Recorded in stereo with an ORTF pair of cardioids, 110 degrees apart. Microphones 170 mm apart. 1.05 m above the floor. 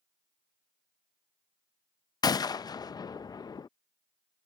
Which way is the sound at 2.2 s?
25° left.